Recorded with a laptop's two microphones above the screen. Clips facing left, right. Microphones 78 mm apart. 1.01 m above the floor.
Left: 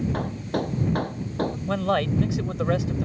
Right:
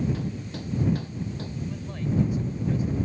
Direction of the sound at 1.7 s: 85° left.